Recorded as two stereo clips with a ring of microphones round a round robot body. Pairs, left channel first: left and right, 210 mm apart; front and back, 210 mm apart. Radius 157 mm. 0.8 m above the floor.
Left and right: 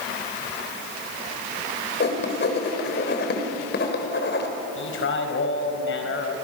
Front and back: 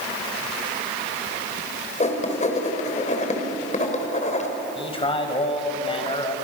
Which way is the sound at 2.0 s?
55° left.